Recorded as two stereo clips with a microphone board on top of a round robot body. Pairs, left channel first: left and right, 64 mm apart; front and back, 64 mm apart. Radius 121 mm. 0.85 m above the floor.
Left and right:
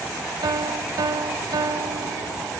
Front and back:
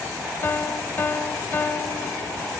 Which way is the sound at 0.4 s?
65° right.